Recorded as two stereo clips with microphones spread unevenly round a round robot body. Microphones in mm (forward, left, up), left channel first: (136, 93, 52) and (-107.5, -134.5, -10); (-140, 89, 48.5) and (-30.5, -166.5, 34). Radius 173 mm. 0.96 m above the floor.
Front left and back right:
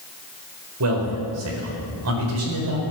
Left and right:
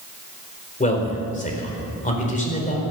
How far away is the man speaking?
About 4.5 m.